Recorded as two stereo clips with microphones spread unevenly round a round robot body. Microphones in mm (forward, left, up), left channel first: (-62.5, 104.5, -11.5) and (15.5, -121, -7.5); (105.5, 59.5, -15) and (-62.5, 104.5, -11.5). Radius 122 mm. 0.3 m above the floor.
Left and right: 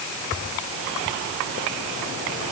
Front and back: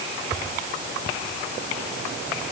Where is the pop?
No pop in this recording.